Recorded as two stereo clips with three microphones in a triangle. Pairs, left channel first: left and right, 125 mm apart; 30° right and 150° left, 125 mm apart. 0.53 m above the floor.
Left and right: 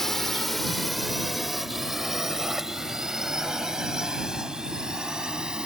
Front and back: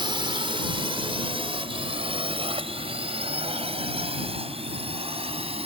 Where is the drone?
175° left; by 5.7 s 175° right.